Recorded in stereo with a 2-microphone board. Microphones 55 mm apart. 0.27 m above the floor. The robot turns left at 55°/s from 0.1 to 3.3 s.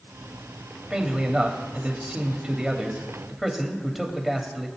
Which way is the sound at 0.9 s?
10° right (ahead or behind).